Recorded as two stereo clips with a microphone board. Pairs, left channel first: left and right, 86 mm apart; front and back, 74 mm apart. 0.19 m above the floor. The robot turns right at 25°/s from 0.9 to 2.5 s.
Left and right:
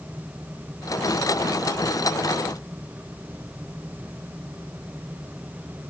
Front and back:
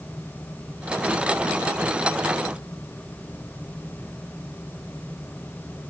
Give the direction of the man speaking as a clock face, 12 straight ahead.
I don't hear a man speaking.